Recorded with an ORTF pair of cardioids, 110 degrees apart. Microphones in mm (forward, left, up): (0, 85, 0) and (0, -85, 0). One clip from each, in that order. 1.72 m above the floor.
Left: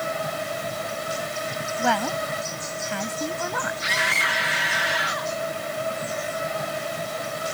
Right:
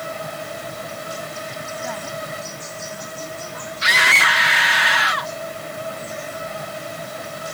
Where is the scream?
45° right.